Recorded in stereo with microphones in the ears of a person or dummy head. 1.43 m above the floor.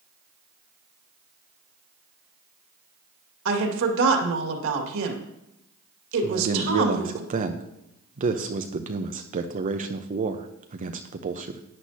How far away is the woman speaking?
About 2 m.